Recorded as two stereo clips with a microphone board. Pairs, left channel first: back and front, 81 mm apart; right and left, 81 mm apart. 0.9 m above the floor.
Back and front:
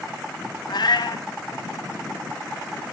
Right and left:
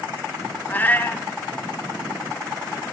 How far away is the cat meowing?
About 1.8 m.